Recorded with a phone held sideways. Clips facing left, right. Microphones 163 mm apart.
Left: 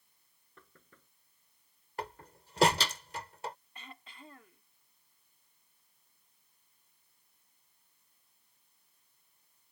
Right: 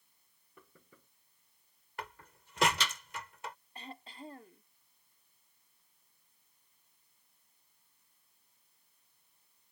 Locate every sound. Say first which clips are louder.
0.6 s knocking: right 1 dB; 10° right (ahead or behind)
2.0 s a door slam: left 5 dB; 35° left (ahead or behind)
3.8 s throat clearing: right 5 dB; 35° right (ahead or behind)